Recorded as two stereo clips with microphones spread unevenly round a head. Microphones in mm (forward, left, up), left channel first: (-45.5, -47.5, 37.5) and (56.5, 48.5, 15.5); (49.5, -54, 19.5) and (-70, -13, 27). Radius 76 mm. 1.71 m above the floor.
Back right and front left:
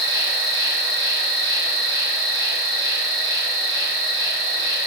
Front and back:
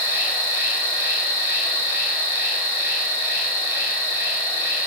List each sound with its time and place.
0.0 s an insect: 40° left, 1.8 m